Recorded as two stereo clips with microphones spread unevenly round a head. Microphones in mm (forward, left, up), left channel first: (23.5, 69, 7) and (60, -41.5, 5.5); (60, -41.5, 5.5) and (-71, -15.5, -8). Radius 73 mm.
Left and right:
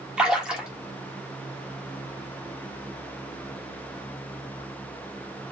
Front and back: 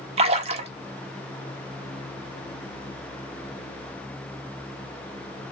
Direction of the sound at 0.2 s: 155° right.